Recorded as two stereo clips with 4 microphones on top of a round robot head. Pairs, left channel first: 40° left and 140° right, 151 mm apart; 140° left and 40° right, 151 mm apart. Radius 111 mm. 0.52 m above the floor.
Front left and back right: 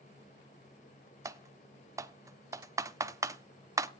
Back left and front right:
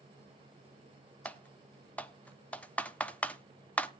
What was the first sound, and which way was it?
Typing on a keyboard, 155° right.